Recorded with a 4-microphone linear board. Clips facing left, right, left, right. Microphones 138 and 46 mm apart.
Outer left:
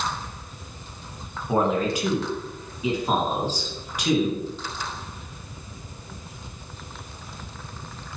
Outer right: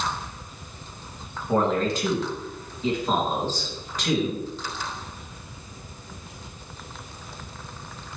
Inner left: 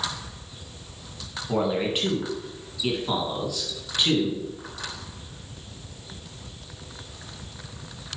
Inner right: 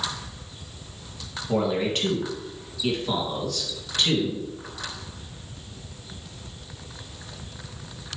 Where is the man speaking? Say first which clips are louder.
Even, inner right 1 dB; 10° left (ahead or behind), 1.7 m.